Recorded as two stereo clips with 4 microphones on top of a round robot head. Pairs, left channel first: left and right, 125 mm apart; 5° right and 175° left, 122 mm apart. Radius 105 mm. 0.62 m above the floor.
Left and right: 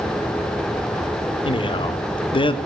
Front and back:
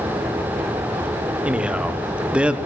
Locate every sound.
1.4 s a man speaking: 95° left, 0.8 m